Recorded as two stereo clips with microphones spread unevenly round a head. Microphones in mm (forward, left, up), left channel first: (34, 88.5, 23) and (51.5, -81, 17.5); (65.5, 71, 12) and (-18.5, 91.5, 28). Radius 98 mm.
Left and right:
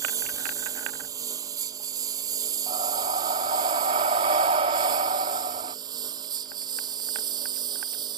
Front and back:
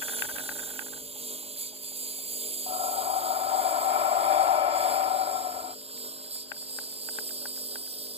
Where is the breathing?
145° right.